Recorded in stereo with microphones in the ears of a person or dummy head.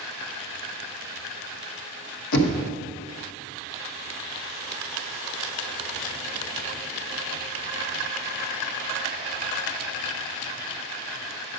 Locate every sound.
2.3 s knocking: 75° left (ahead or behind), 1.2 m